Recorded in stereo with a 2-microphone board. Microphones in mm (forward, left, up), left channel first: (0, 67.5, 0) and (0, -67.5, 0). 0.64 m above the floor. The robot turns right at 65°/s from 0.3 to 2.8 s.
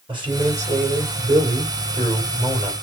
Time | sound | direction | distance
0.1 | a man speaking | 140° right | 3.5 m